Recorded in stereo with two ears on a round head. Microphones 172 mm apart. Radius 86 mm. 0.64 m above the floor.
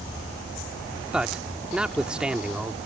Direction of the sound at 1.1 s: 5° right (ahead or behind).